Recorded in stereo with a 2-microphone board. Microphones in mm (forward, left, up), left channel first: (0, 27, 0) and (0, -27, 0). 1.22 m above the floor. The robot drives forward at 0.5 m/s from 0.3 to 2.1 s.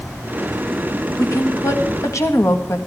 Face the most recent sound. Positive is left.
turn(degrees=70)  # may be behind; listen again after turning